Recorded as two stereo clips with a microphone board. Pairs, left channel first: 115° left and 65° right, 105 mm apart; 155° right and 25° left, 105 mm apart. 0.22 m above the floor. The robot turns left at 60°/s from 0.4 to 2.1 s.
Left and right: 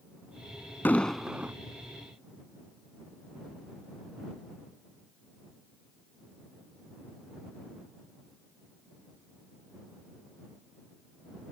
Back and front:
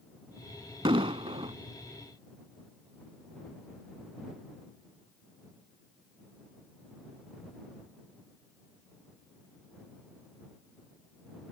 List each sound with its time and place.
0.8 s an explosion: 45° left; by 1.6 s straight ahead